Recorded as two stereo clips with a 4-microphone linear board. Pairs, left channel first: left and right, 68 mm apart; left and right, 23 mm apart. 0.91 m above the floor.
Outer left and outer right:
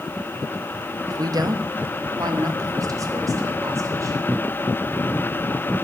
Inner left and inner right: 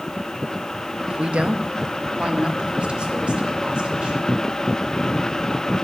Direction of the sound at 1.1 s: 55° right (ahead or behind).